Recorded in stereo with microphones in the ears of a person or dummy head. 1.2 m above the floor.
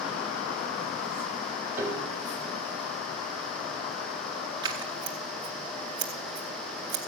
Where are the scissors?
25° right (ahead or behind), 1.0 m.